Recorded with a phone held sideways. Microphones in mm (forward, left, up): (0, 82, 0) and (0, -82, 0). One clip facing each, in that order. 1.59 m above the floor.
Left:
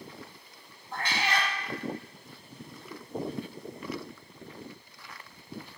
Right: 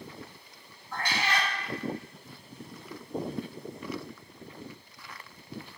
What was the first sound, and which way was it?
A cat meowing, 25° left (ahead or behind).